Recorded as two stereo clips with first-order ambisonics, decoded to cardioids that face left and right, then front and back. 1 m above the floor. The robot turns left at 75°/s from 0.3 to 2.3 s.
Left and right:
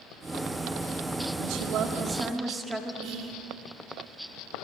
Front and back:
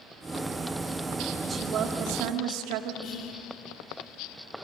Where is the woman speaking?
105° right, 2 m; by 2.9 s 170° right, 2 m.